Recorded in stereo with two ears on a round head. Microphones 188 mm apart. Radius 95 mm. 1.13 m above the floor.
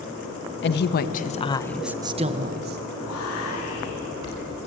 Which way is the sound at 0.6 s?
55° left (ahead or behind).